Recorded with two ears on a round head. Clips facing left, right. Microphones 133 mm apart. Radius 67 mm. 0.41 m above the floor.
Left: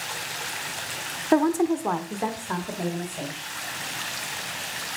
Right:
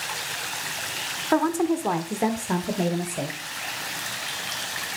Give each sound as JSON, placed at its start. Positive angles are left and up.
{"t": 1.3, "sound": "a woman speaking", "side_deg": 20, "distance_m": 0.7}